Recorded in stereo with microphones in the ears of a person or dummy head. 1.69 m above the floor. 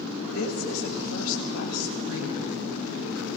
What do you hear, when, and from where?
0.3 s a woman speaking: 80° left, 8.5 m; by 2.4 s 85° left, 7 m